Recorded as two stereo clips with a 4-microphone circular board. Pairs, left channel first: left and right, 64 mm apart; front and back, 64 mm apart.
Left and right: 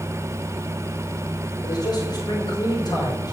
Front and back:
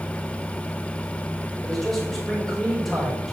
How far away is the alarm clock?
I don't hear an alarm clock.